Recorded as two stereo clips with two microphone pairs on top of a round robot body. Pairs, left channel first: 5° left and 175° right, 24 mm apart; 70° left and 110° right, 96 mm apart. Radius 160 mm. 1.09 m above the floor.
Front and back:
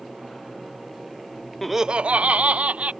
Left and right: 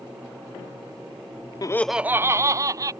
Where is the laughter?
75° left; by 2.9 s 165° right.